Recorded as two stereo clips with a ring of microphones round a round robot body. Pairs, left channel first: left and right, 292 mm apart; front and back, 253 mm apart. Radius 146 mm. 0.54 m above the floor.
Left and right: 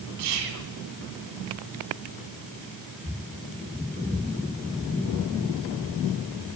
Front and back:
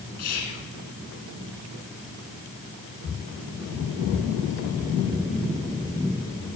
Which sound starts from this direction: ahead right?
Whispering, at 0.2 s.